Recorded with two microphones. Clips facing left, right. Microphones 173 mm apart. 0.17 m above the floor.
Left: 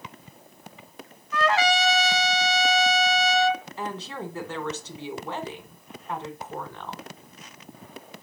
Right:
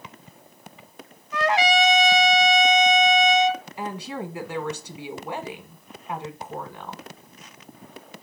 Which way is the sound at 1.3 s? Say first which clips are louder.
Right 2 dB; 20° right (ahead or behind).